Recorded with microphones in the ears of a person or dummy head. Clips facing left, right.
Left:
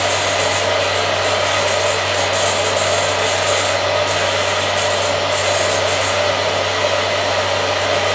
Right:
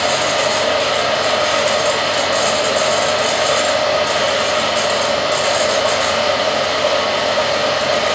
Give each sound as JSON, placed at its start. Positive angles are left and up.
{"t": 0.0, "sound": "a fan", "side_deg": -40, "distance_m": 1.8}